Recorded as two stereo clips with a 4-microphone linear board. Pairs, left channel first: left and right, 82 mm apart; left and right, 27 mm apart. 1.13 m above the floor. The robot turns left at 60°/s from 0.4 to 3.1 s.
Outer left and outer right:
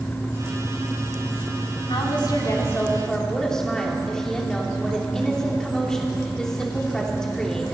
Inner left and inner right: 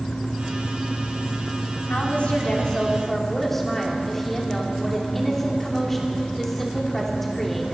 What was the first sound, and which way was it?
A woman speaking, 80° left.